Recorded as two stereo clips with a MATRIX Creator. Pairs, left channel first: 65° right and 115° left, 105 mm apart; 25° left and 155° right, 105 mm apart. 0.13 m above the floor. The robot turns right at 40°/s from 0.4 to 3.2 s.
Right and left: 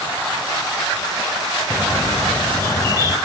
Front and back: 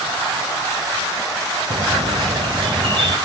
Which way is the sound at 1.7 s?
170° right.